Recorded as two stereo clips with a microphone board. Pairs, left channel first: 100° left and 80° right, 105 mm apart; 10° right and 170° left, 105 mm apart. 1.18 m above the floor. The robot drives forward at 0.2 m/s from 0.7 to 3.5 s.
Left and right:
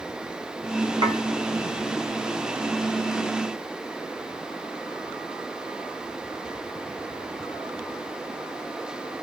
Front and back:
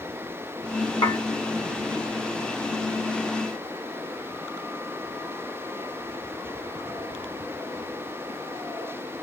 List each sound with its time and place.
1.0 s dishes clattering: 50° right, 0.9 m